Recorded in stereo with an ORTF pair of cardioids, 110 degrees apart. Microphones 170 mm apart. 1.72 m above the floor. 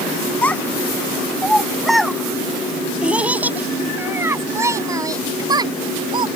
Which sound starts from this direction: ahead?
A child speaking, at 0.4 s.